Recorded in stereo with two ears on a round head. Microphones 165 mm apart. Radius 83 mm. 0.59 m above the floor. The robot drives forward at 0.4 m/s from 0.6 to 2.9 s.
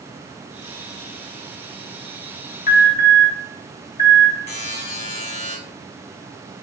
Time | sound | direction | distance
2.7 | an alarm | 40° left (ahead or behind) | 1.2 m
4.5 | a buzzer | 40° left (ahead or behind) | 1.3 m